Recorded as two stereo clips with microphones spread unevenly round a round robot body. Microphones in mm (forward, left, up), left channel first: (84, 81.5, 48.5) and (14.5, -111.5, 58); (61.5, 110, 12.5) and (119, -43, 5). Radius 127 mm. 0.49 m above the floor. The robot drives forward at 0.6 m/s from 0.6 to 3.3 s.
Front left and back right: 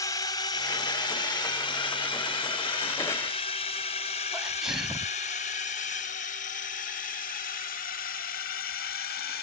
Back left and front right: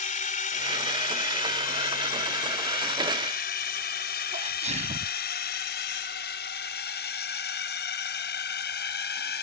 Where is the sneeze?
20° right.